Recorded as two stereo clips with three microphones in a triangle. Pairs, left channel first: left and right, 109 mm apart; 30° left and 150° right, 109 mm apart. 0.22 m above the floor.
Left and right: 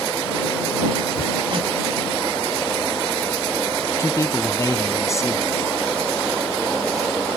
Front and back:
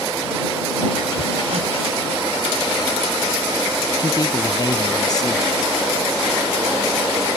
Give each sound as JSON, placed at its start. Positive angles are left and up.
{"t": 1.2, "sound": "hammering", "azimuth_deg": -130}
{"t": 4.0, "sound": "a man speaking", "azimuth_deg": 50}